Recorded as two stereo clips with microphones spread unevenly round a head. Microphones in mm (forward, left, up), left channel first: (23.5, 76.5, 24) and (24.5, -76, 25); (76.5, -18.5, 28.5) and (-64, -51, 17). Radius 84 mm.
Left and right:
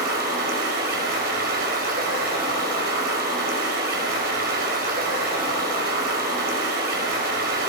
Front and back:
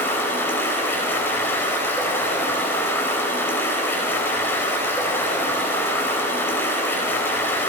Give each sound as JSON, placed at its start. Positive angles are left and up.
{"t": 0.0, "sound": "running water", "azimuth_deg": -65, "distance_m": 4.5}